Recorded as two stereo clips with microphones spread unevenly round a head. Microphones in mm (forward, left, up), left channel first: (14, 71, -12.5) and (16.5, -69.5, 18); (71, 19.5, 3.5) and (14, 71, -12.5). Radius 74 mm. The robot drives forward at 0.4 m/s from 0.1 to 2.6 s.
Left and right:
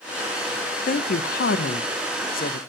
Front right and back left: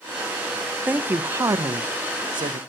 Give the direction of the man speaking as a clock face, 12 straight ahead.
10 o'clock.